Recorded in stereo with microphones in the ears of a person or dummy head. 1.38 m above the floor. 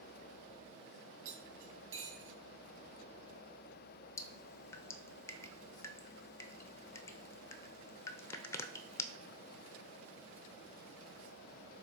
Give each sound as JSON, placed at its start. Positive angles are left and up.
{"t": 1.2, "sound": "cutlery clinking", "side_deg": -50, "distance_m": 3.0}
{"t": 4.2, "sound": "dripping", "side_deg": 15, "distance_m": 0.5}